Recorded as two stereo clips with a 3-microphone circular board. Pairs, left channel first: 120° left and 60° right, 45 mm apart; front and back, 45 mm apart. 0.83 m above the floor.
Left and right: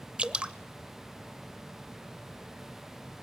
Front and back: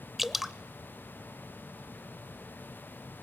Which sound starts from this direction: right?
Dripping, at 0.2 s.